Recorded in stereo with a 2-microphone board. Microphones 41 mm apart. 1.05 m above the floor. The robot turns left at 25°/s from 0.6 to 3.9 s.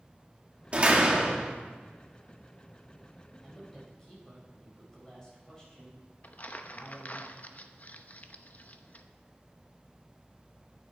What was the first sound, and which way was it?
A door slam, 30° right (ahead or behind).